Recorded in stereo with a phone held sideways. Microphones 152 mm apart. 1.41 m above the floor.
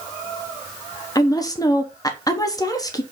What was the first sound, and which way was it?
A woman speaking, 25° left (ahead or behind).